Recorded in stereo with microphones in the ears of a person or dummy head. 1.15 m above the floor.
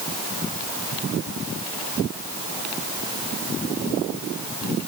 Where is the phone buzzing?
No phone buzzing in this recording.